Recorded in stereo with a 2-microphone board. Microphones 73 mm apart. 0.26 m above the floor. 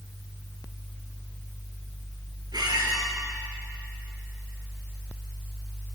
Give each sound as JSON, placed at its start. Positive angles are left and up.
{"t": 2.5, "sound": "a squeak", "side_deg": -70, "distance_m": 2.5}